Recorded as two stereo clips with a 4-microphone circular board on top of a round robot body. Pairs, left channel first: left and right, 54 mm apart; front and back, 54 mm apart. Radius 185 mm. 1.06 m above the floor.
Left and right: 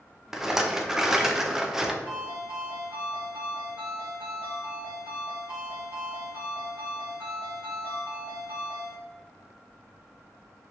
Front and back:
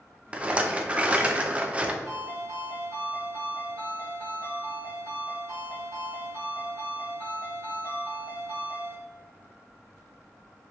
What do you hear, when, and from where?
0.3 s a rattle: 160° right, 0.6 m
2.0 s a ringtone: 150° right, 1.2 m